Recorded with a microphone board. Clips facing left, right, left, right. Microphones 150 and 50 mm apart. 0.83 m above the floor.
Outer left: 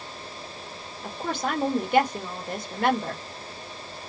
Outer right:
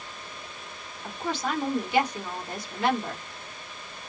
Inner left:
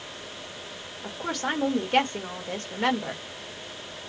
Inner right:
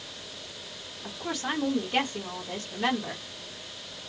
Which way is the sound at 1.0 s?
55° left (ahead or behind).